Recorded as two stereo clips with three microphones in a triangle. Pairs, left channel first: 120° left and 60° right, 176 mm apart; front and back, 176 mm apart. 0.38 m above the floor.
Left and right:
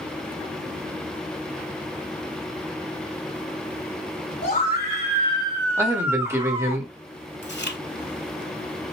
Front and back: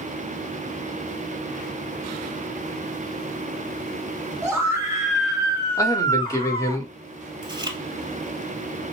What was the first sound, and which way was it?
A scream, 110° left.